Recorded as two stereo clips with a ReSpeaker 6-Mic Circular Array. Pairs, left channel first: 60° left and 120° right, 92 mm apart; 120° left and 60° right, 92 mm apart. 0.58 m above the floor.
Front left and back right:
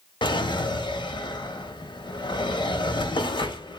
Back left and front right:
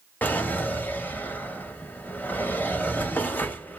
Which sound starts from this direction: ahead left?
A drawer, at 0.2 s.